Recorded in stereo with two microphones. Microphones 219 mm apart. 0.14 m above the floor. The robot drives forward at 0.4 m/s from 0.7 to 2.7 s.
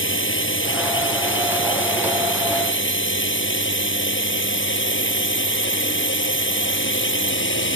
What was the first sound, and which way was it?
A drone, 65° left (ahead or behind).